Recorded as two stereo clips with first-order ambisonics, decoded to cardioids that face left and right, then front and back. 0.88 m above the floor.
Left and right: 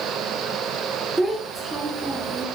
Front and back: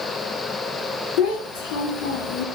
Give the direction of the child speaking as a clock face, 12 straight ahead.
12 o'clock.